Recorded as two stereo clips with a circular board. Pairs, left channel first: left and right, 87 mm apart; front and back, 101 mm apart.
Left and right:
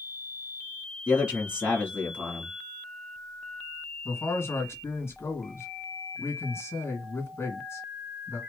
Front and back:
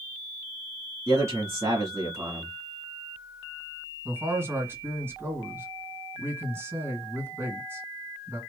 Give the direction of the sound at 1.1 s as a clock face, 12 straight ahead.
5 o'clock.